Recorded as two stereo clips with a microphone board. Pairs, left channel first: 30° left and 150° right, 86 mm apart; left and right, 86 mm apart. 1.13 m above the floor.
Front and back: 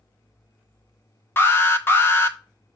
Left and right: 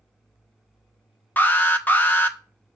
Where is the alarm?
50° left, 0.9 m.